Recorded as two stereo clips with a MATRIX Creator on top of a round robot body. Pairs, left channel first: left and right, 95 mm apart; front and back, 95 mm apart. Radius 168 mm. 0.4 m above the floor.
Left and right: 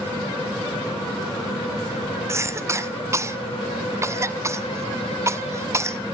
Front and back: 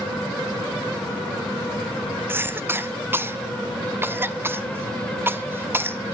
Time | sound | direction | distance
2.3 | a cough | 130° right | 1.3 m